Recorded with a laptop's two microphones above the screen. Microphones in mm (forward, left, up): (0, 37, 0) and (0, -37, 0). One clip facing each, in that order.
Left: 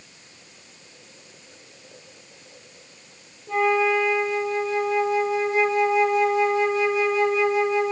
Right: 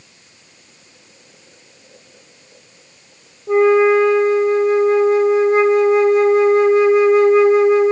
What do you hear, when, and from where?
3.5 s a flute: 50° right (ahead or behind), 1.0 m